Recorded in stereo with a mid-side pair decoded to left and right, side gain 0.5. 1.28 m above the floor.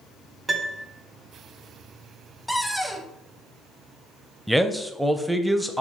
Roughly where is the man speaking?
Ahead.